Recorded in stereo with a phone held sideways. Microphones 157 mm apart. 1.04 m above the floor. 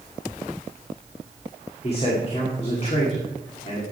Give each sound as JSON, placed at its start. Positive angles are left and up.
{"t": 1.8, "sound": "a man speaking", "side_deg": 40, "distance_m": 2.0}